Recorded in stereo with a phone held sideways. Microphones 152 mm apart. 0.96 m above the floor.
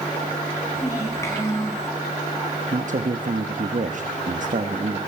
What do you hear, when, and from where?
0.8 s a child speaking: 20° left (ahead or behind), 8 m; by 1.9 s 15° left (ahead or behind), 8.5 m
2.7 s a man speaking: 55° right (ahead or behind), 1.0 m